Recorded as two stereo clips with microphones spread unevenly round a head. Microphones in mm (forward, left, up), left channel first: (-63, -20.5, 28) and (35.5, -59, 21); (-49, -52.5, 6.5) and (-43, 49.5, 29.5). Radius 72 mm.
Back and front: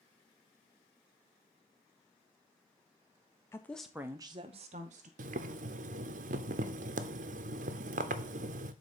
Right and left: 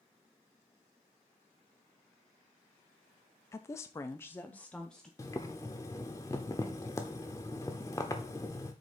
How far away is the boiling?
About 0.6 m.